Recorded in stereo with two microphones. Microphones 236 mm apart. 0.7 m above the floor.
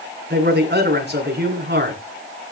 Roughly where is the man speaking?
Right.